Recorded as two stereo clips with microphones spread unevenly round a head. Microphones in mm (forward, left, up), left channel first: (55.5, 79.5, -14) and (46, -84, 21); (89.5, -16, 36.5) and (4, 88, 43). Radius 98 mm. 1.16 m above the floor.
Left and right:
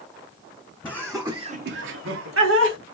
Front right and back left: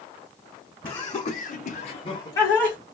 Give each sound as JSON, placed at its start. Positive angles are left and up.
{"t": 0.8, "sound": "laughter", "azimuth_deg": 10, "distance_m": 1.2}